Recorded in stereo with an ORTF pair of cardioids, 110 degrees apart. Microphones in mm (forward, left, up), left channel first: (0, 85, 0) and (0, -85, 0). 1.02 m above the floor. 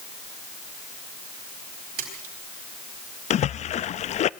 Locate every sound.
2.0 s a splash: 60° right, 5 m
3.3 s a splash: 45° left, 0.5 m